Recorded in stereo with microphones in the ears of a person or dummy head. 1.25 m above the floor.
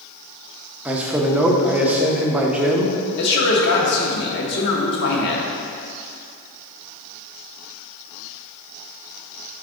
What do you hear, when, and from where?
0.8 s a man speaking: 5° right (ahead or behind), 0.5 m
3.2 s a man speaking: 65° left (ahead or behind), 1.0 m